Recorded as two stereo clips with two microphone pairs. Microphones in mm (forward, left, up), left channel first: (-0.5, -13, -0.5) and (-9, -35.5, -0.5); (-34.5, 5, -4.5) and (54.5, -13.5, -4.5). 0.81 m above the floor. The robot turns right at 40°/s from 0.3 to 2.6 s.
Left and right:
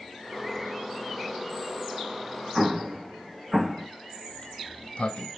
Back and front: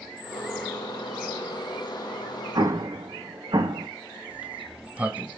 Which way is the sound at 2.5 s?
40° right.